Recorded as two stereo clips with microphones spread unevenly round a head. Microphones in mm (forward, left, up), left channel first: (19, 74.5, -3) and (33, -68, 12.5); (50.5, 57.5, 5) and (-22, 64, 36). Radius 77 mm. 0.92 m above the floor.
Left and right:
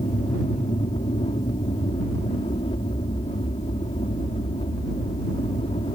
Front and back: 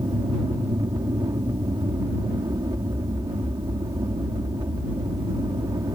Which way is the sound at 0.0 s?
150° left.